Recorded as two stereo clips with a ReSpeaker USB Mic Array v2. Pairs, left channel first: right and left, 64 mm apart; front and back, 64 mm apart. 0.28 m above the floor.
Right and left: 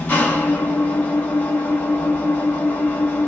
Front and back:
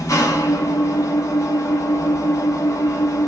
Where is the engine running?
30° right, 1.2 m.